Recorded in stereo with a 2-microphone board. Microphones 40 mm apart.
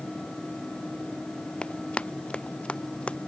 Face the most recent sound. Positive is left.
turn(degrees=30)  # may be behind; listen again after turning